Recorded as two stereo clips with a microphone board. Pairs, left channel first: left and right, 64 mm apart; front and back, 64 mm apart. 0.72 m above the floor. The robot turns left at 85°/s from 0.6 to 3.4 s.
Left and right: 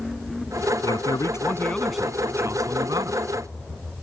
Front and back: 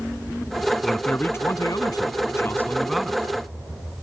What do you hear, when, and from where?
0.8 s a man speaking: 90° left; by 3.2 s 115° right